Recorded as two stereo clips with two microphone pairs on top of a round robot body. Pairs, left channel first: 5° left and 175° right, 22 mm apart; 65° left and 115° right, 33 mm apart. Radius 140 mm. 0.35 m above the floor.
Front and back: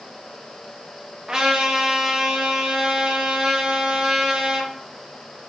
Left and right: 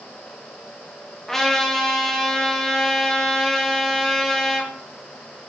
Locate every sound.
1.3 s a trumpet: 125° left, 0.8 m